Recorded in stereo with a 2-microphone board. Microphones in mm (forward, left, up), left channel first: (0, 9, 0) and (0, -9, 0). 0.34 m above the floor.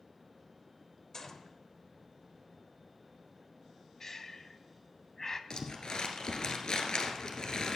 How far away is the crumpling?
About 1.1 m.